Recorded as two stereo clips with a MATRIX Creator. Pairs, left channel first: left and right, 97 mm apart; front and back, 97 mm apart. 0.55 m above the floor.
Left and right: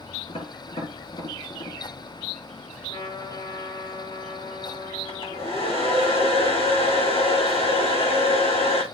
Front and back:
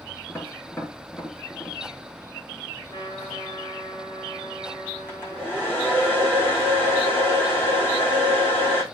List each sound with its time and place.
0.3 s tapping: 70° left, 5.5 m
2.9 s a trumpet: 50° left, 5 m
5.1 s a hair dryer: 70° left, 5.5 m